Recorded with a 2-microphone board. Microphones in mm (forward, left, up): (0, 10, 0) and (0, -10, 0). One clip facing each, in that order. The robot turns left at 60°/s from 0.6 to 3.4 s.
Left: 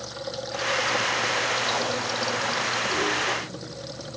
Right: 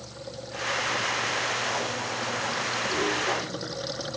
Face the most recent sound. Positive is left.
turn(degrees=-25)